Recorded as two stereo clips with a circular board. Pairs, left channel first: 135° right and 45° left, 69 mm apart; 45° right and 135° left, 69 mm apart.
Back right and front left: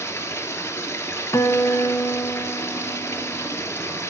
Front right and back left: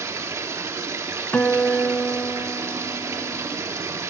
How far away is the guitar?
About 1.0 m.